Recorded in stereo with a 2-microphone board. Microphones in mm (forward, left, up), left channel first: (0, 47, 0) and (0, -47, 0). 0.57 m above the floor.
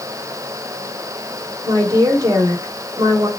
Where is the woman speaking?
40° right (ahead or behind), 1.3 m.